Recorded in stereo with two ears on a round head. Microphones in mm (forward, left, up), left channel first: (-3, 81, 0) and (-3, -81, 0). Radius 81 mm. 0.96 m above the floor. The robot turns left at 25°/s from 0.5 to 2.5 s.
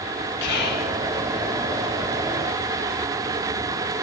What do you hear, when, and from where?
0.4 s whispering: 60° left (ahead or behind), 1.4 m; by 0.9 s 55° left (ahead or behind), 1.4 m